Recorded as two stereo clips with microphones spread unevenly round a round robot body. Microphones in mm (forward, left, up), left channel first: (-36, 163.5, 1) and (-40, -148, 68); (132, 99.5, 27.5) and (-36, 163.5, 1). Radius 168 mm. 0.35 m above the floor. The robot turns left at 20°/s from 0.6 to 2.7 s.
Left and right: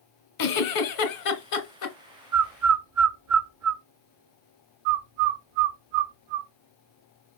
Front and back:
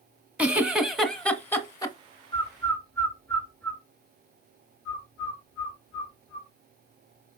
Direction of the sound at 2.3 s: 105° right.